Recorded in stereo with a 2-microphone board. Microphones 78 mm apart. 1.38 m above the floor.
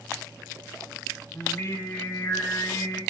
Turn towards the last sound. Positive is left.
turn(degrees=35)  # may be behind; listen again after turning